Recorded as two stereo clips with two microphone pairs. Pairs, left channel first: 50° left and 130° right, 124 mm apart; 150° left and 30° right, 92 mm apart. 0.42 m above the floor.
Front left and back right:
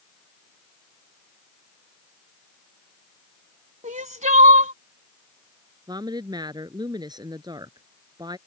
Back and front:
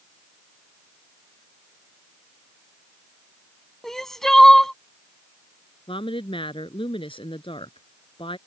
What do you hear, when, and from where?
3.8 s crying: 120° right
5.9 s a woman speaking: 170° left